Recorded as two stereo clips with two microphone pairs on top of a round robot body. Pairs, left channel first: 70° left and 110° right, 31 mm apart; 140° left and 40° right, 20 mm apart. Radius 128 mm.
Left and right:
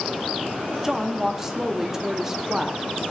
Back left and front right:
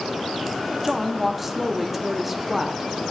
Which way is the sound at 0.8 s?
90° right.